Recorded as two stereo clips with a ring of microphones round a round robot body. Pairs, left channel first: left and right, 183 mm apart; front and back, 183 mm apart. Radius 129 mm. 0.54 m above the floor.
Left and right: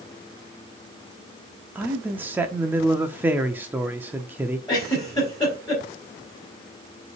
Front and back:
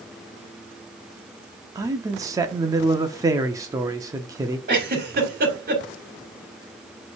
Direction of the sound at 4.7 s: 160° left.